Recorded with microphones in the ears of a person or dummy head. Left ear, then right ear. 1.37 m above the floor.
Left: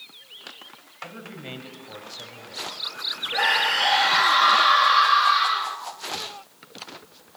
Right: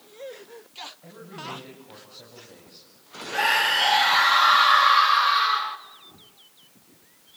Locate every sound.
1.0 s a man speaking: 70° left (ahead or behind), 7 m; by 2.9 s 60° left (ahead or behind), 6.5 m
3.3 s a scream: centre (ahead or behind), 3 m